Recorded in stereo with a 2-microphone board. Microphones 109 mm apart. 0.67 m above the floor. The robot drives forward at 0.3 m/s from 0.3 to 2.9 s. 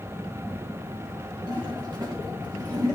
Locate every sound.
1.5 s a toilet flushing: 45° right (ahead or behind), 2 m; by 3.0 s 35° right (ahead or behind), 2.5 m